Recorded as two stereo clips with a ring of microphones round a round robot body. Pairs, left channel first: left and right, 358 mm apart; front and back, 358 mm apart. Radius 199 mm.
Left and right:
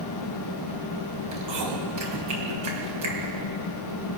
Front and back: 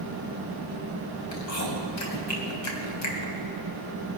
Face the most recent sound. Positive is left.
turn(degrees=-45)